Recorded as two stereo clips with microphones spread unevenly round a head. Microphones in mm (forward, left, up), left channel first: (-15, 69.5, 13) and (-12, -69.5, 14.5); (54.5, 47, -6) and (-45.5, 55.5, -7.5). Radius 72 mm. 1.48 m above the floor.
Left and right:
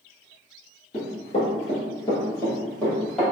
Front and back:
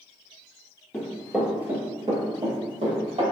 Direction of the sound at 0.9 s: 70° left.